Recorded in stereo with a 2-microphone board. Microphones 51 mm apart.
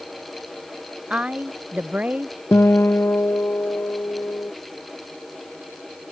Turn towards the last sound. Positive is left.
turn(degrees=55)  # may be behind; listen again after turning